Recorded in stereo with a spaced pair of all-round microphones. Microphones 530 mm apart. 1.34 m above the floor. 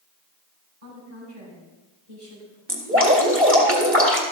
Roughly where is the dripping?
Right.